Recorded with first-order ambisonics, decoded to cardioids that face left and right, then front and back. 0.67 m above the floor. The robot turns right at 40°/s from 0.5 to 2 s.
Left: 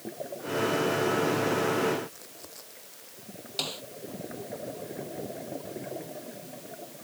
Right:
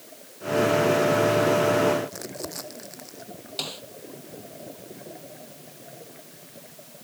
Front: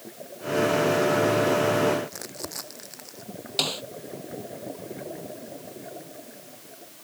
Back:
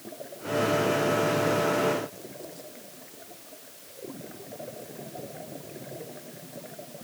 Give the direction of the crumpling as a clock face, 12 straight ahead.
1 o'clock.